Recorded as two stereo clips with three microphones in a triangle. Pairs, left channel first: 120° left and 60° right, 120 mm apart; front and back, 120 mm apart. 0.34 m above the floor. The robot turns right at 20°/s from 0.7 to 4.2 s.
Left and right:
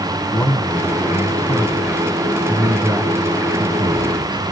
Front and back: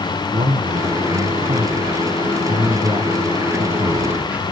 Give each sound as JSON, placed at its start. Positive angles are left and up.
{"t": 0.3, "sound": "a man speaking", "azimuth_deg": -170, "distance_m": 2.5}